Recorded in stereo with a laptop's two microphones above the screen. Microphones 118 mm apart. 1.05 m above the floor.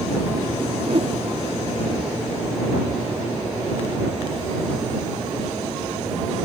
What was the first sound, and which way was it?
A whoosh, 50° right (ahead or behind).